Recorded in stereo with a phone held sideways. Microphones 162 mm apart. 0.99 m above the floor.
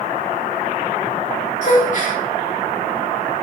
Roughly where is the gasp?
Left.